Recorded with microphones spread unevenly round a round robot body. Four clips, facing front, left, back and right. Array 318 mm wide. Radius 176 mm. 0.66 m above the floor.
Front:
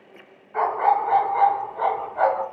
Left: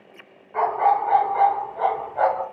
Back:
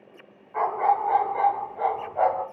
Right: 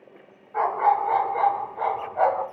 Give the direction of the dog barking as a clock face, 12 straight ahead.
8 o'clock.